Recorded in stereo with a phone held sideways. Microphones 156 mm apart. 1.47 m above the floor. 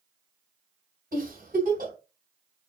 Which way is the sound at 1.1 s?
70° right (ahead or behind).